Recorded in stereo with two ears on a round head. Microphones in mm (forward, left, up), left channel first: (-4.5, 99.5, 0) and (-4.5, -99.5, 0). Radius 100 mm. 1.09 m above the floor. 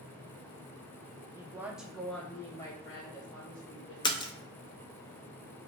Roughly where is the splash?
Centre.